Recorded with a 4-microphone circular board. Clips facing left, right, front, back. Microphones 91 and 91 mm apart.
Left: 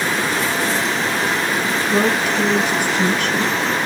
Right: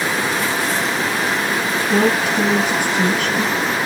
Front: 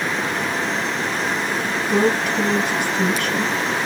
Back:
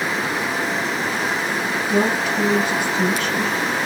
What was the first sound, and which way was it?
A woman speaking, 95° right.